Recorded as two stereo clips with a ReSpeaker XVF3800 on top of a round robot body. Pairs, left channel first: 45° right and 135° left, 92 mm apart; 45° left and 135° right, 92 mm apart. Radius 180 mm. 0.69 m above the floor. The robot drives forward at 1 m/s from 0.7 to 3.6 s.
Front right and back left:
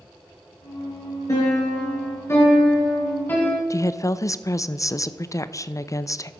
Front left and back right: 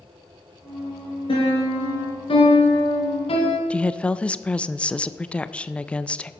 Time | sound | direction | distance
1.3 | a piano | 15° left | 4 m
3.7 | a woman speaking | 25° right | 0.7 m